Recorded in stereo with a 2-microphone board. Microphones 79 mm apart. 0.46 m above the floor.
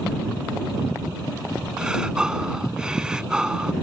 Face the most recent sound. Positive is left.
turn(degrees=-10)  # may be behind; listen again after turning